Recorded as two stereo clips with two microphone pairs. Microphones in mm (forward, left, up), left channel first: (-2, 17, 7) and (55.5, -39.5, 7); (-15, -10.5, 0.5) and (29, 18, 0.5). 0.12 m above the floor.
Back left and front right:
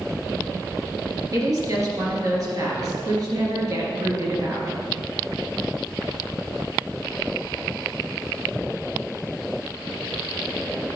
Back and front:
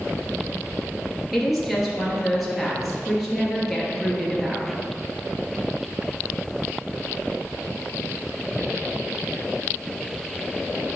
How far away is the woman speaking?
About 2.5 m.